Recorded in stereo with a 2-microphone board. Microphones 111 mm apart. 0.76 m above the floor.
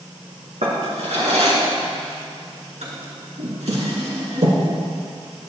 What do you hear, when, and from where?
0.6 s a drawer: 85° right, 3 m